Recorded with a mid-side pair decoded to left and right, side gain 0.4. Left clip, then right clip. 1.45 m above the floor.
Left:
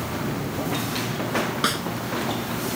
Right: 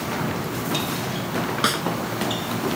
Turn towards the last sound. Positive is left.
turn(degrees=-20)